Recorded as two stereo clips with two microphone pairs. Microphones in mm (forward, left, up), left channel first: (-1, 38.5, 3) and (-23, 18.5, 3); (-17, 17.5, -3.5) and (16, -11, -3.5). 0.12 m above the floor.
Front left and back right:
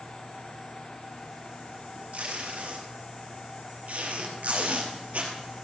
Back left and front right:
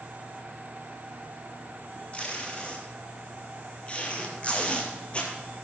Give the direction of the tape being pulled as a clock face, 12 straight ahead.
5 o'clock.